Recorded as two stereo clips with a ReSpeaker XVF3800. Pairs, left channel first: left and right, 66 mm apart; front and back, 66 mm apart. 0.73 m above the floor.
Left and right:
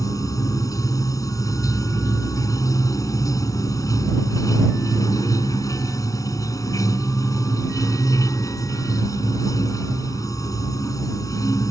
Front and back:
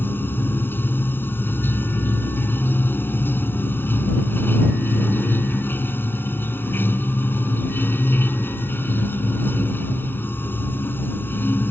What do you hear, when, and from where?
0.0 s running water: 60° left